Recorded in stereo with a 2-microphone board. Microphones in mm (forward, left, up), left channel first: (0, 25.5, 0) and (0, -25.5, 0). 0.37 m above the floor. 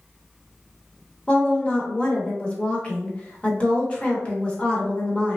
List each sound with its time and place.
1.3 s a woman speaking: 25° left (ahead or behind), 0.8 m